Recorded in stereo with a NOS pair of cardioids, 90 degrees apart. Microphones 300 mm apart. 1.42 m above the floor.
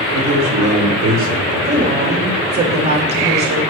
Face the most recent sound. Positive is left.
turn(degrees=-35)